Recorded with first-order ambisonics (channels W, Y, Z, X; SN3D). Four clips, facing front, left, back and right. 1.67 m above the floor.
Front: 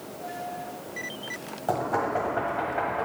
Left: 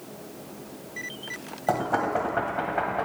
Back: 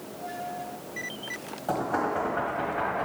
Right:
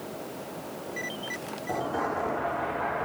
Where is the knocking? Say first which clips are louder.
Left 5 dB, front 1 dB; 75° left, 1.2 m.